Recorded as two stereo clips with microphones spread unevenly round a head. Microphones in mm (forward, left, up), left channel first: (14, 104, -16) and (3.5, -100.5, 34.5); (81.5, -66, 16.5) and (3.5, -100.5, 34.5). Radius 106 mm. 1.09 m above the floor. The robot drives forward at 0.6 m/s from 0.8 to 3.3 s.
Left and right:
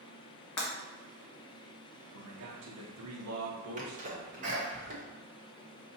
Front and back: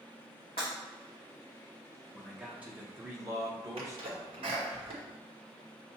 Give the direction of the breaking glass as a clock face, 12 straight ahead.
9 o'clock.